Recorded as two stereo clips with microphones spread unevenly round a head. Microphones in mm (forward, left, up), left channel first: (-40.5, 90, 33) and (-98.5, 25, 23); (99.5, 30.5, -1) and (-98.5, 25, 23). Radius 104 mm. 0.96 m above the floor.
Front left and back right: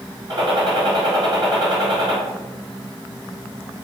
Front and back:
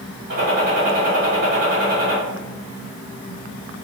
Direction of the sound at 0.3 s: 130° right.